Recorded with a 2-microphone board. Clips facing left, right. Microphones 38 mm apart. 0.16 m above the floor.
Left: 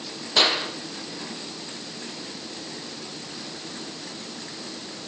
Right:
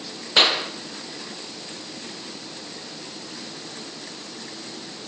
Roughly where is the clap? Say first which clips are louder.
Right 2 dB; right.